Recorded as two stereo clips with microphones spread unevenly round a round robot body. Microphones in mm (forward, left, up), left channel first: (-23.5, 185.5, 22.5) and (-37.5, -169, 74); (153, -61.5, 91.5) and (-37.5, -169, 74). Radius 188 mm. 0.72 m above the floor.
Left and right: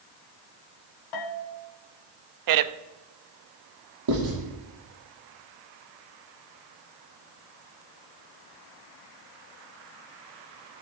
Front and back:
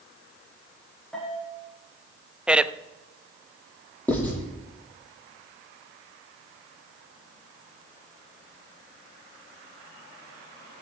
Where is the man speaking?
70° right, 0.8 m.